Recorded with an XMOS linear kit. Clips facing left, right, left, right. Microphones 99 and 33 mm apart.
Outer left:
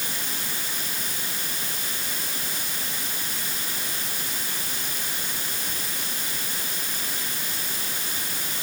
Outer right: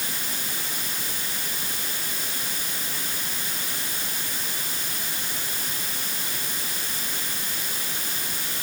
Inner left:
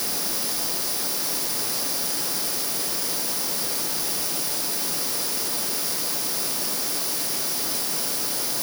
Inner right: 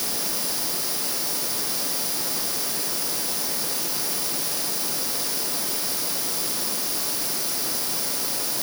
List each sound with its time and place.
Only background noise.